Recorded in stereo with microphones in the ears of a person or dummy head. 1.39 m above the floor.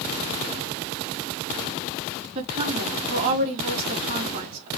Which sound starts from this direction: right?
A woman speaking, at 2.4 s.